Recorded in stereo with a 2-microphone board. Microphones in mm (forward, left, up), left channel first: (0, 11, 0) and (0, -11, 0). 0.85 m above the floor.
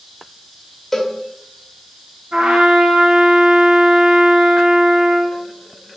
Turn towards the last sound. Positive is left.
turn(degrees=-85)